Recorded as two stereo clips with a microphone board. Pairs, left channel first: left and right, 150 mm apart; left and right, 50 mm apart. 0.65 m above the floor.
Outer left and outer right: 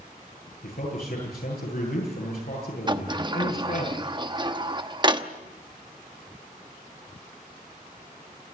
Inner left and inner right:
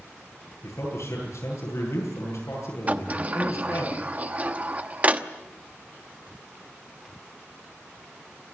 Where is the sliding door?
30° right (ahead or behind), 1.0 m.